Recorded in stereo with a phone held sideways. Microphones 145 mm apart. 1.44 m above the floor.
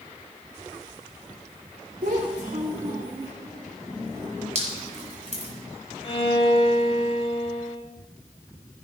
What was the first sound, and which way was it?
A child speaking, 80° right.